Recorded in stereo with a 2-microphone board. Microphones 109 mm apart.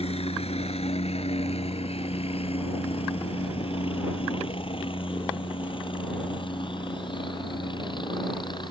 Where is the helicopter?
65° left (ahead or behind); by 8.7 s 45° left (ahead or behind).